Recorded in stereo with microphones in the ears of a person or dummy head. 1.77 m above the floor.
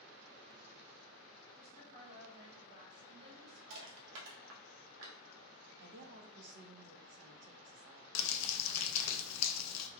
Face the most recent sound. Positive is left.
turn(degrees=85)